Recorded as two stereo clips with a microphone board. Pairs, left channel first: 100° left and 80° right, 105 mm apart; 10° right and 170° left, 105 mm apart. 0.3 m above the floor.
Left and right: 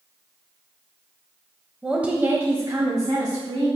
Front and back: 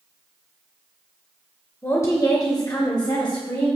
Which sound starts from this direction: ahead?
A woman speaking, at 1.8 s.